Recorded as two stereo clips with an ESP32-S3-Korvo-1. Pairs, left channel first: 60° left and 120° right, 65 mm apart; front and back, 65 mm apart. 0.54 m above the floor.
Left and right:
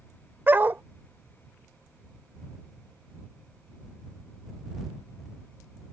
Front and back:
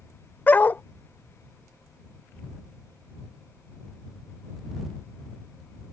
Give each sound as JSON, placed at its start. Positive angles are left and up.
{"t": 0.5, "sound": "a dog barking", "azimuth_deg": -60}